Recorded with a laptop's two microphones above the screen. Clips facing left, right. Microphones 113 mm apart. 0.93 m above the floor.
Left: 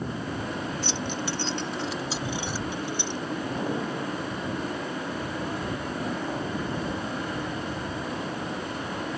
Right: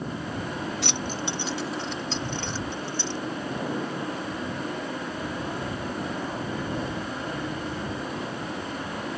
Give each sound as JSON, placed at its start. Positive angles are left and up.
{"t": 0.8, "sound": "keys jangling", "side_deg": -70}